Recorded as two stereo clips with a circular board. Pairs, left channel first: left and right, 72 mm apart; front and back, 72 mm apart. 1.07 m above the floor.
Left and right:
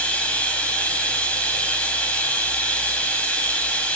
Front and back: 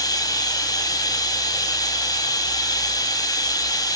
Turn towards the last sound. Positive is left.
turn(degrees=20)